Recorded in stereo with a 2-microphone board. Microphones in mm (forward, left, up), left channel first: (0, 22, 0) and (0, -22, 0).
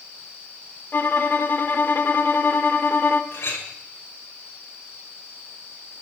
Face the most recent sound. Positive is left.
turn(degrees=65)  # may be behind; listen again after turning